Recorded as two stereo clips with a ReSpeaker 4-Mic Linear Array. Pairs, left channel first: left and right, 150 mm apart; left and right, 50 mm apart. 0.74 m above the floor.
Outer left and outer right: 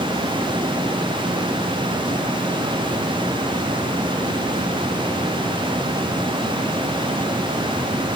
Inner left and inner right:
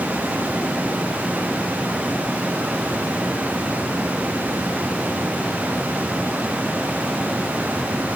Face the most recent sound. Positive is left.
No sound to turn to.